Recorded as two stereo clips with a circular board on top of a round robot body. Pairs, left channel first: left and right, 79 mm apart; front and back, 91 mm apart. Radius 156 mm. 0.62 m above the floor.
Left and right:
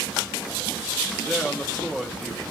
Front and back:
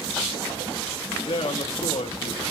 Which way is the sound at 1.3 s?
10° left.